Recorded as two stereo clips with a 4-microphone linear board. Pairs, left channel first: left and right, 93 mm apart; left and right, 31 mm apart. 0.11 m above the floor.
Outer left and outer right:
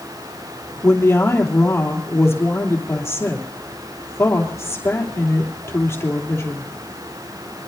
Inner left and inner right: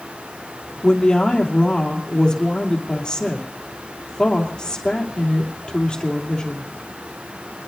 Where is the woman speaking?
30° left (ahead or behind), 3 m.